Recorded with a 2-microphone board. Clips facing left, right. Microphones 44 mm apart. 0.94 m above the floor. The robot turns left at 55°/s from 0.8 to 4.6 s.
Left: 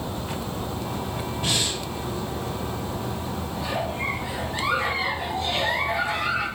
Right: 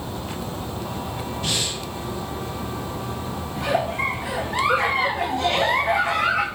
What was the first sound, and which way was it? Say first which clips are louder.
Breathing: left 1 dB; 15° left (ahead or behind).